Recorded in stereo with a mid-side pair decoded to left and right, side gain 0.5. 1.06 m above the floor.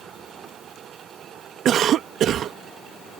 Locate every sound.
1.6 s a cough: 60° right